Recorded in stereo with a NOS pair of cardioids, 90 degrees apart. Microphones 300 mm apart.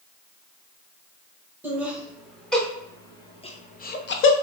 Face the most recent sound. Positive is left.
turn(degrees=55)